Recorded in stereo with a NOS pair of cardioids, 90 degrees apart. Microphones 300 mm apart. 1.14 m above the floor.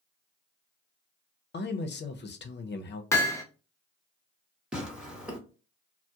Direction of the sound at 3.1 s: 10° left.